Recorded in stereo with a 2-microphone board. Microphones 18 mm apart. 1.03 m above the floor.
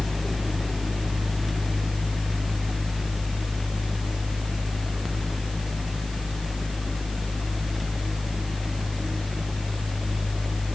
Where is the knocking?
No knocking in this recording.